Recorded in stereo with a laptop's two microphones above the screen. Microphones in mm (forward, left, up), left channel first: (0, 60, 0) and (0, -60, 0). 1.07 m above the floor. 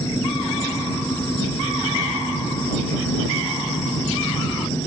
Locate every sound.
0.0 s an engine running: 20° left (ahead or behind)